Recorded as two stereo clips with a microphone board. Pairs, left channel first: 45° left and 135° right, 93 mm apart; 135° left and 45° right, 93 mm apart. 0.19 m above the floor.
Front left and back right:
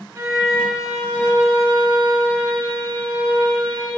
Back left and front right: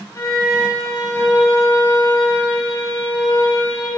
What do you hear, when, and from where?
0.1 s a violin: straight behind, 1.4 m